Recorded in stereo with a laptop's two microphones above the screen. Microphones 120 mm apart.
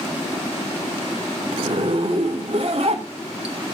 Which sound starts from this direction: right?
A zipper, at 1.5 s.